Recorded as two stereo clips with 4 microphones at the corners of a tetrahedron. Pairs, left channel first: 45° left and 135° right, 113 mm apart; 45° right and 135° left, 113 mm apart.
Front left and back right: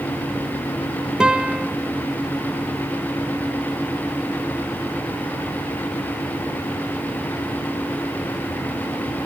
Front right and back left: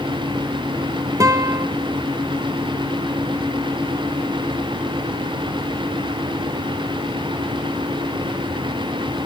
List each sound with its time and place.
1.2 s a guitar: 150° left, 1.4 m